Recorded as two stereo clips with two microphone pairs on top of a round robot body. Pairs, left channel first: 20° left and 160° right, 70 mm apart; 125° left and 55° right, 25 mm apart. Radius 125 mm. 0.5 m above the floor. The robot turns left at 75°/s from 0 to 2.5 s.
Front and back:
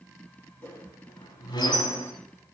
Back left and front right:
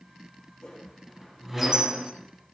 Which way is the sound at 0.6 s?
85° left.